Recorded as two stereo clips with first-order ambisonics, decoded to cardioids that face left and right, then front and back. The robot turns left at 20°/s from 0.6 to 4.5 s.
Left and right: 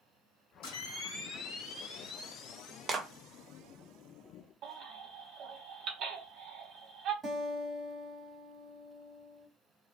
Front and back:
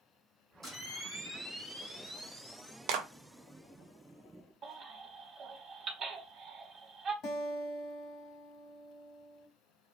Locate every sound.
0.6 s a camera shutter: 90° left, 1.5 m; by 2.8 s 45° left, 1.5 m
2.9 s a clap: 165° right, 0.6 m; by 3.1 s 170° right, 0.6 m
4.6 s a baby crying: 125° right, 0.8 m
7.2 s a guitar: 25° right, 1.2 m